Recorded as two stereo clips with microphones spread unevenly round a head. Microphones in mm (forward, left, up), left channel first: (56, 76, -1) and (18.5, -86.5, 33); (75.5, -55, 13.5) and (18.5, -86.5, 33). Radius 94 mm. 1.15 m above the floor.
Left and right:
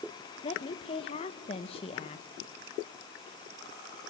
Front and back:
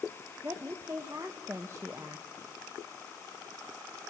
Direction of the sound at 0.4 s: 135° left.